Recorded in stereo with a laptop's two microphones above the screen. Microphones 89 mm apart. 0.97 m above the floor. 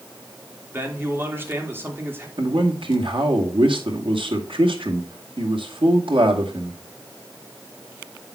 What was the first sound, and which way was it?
A man speaking, 25° right (ahead or behind).